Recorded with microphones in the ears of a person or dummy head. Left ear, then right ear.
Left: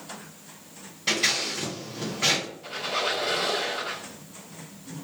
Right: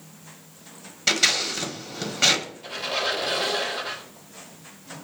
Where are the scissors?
40° right (ahead or behind), 0.9 m.